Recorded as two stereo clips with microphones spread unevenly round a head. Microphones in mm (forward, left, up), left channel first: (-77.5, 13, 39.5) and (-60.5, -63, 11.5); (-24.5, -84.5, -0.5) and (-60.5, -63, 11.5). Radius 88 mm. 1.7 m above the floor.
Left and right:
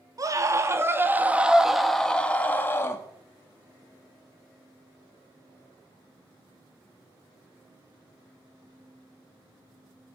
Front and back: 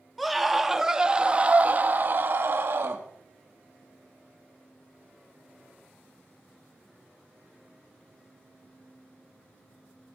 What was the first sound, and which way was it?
A scream, 125° right.